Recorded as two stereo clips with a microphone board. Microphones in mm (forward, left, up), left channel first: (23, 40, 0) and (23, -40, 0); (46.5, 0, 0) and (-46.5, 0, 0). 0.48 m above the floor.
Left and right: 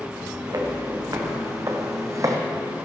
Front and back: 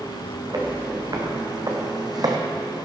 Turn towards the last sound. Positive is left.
turn(degrees=-135)